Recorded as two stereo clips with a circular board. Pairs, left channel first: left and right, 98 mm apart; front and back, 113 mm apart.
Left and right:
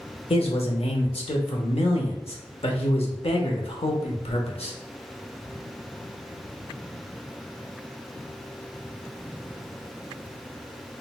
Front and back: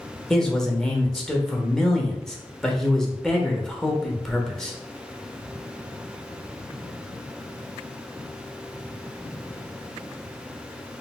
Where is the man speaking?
85° left, 0.7 m.